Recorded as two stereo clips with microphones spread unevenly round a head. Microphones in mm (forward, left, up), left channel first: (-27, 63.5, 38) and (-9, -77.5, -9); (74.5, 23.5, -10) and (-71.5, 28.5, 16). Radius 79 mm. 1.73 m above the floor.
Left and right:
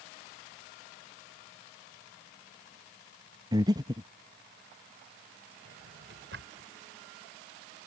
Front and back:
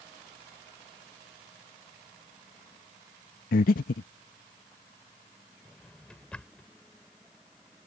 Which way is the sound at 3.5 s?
5° right.